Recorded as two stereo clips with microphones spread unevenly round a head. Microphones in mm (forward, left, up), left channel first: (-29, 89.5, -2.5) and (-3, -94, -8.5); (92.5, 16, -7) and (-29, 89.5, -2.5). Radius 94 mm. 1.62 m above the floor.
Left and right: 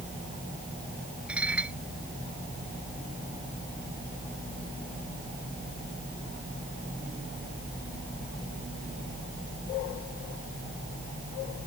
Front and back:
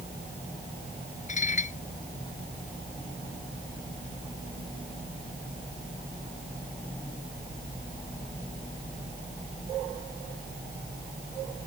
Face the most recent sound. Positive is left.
turn(degrees=0)